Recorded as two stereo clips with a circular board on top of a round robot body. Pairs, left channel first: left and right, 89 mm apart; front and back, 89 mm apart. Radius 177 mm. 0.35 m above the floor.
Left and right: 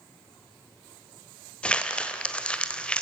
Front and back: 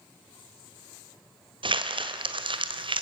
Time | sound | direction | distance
1.6 | crumpling | 170° left | 1.5 m